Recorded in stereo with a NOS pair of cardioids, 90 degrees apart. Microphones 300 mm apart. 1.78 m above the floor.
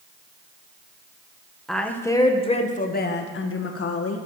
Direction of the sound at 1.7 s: Straight ahead.